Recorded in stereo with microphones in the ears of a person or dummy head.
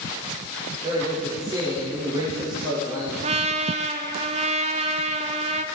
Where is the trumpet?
30° right (ahead or behind), 0.6 m.